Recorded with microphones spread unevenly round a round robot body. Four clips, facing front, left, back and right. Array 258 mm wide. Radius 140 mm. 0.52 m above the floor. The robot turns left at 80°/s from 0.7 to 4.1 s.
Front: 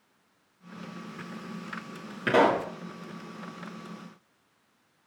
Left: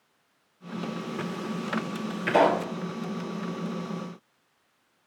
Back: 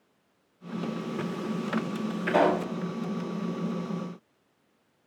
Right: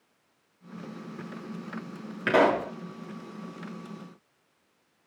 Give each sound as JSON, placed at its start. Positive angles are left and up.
{"t": 2.3, "sound": "a pop", "azimuth_deg": -35, "distance_m": 9.0}